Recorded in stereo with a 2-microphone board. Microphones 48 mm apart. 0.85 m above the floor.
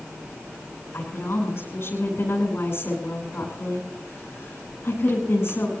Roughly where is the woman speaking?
Left.